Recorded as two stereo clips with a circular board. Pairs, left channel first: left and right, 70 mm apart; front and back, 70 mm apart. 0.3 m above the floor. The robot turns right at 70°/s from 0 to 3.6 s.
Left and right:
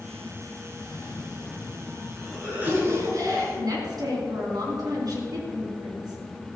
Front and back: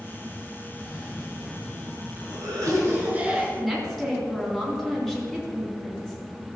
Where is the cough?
80° left, 4 m; by 3.5 s 90° right, 4 m.